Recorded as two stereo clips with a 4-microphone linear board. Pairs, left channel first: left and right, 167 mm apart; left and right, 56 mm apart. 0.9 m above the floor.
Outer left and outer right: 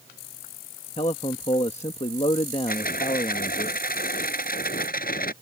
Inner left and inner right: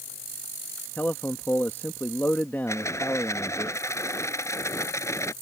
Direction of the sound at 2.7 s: 60° left (ahead or behind).